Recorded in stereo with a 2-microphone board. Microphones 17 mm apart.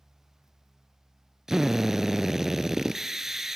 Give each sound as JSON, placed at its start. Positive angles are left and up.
{"t": 1.5, "sound": "a drill", "side_deg": -30, "distance_m": 0.8}